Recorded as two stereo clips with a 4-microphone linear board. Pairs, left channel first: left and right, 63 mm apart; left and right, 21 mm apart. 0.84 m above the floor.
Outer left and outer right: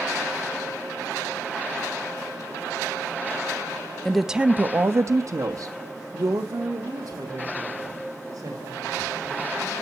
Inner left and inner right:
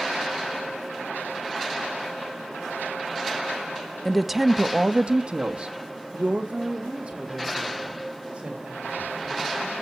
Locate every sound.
4.0 s a woman speaking: 10° left (ahead or behind), 0.8 m; by 9.8 s 70° right (ahead or behind), 6 m